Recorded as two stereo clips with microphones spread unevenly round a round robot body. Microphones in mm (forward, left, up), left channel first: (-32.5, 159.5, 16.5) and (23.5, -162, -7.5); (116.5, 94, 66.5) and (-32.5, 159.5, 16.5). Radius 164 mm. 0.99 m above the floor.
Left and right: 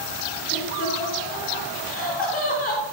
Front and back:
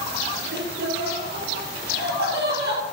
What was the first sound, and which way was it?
Laughter, 165° left.